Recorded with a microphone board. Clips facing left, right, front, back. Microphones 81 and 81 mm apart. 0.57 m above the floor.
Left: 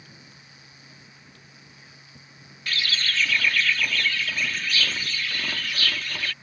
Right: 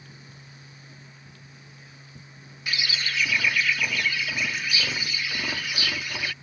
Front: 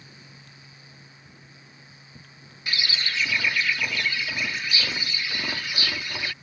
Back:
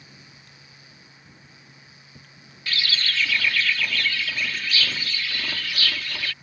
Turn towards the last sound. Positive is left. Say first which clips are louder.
# left 1 dB, back 1 dB
turn(degrees=-35)